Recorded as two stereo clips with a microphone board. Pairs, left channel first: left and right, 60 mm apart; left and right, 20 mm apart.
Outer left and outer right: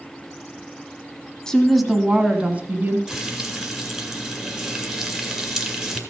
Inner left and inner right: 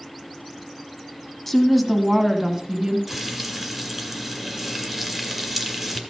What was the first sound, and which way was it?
A woman speaking, 10° left (ahead or behind).